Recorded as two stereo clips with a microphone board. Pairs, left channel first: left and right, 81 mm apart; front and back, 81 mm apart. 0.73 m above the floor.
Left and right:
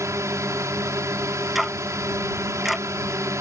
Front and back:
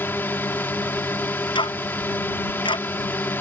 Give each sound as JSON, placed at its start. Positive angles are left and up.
{"t": 0.0, "sound": "a drone", "azimuth_deg": -55}
{"t": 1.6, "sound": "ticking", "azimuth_deg": 0}